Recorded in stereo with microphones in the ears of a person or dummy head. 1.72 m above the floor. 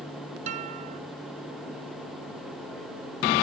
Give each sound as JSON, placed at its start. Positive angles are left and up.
{"t": 0.5, "sound": "a guitar", "side_deg": -45}